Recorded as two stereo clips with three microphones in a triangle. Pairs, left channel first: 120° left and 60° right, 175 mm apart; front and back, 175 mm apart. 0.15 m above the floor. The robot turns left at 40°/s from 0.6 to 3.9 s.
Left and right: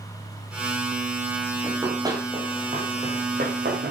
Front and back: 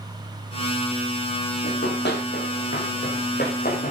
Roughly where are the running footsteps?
Ahead.